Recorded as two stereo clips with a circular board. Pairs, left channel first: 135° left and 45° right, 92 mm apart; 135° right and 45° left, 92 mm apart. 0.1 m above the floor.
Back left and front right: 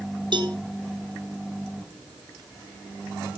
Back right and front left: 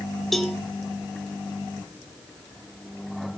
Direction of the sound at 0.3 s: 50° right.